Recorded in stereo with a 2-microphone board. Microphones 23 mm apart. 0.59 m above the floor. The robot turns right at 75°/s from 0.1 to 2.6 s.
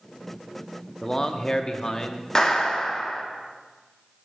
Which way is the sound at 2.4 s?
25° left (ahead or behind).